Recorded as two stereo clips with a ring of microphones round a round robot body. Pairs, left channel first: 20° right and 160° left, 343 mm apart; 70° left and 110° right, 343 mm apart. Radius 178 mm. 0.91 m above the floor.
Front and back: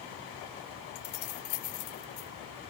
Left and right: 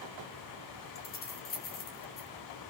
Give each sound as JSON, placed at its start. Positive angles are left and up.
{"t": 0.9, "sound": "keys jangling", "azimuth_deg": 5, "distance_m": 2.5}